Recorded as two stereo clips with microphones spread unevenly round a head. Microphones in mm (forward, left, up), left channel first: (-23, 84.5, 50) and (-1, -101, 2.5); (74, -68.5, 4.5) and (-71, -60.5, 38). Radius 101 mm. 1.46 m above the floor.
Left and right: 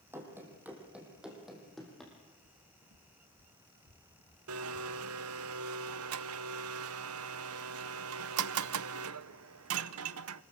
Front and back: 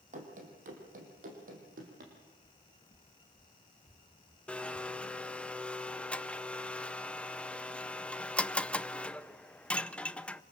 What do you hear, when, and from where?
0.1 s running footsteps: 165° right, 3.5 m; by 2.1 s straight behind, 4.5 m
2.4 s footsteps: 75° right, 2 m; by 5.3 s 90° right, 5.5 m
4.5 s a blender: 90° right, 0.7 m